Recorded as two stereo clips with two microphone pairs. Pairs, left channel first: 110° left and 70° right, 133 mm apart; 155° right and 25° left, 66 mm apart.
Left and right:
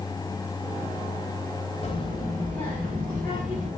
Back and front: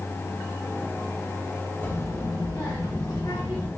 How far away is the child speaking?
About 1.0 m.